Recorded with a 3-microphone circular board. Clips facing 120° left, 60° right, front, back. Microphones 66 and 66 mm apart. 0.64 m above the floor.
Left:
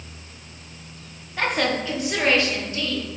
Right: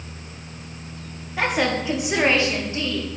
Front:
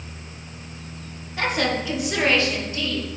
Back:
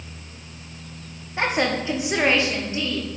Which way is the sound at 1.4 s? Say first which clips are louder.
Right 1 dB, back 1 dB; 140° right.